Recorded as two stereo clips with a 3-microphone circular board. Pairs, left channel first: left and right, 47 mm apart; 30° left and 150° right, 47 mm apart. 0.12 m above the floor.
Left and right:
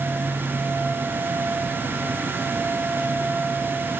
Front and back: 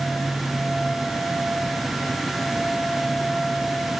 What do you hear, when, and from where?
Only background noise.